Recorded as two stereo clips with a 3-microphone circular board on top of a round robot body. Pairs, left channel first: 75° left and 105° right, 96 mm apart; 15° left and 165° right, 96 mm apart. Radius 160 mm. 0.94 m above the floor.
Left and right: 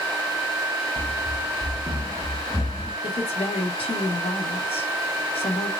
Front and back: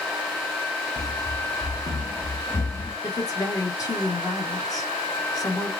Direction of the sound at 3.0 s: 65° left.